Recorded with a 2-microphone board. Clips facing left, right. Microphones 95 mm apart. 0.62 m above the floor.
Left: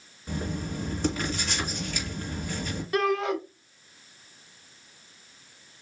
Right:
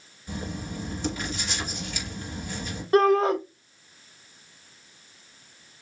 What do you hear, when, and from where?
0.3 s writing: 50° left (ahead or behind), 3 m
2.9 s a shout: 35° right (ahead or behind), 0.8 m